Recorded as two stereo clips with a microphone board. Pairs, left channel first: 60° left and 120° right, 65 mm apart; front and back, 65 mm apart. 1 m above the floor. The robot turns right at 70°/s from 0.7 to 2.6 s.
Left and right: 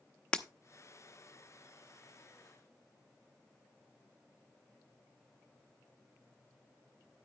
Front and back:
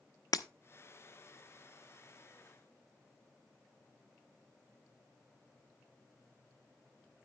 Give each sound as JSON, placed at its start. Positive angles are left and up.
{"t": 0.3, "sound": "breaking glass", "azimuth_deg": -15, "distance_m": 0.7}